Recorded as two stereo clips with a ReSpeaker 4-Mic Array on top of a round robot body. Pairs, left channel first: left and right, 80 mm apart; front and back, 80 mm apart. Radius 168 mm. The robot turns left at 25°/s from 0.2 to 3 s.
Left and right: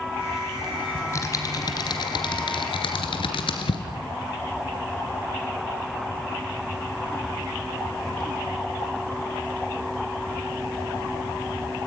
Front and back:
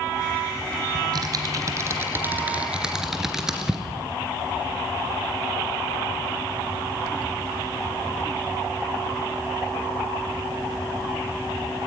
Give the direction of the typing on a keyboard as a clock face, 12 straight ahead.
7 o'clock.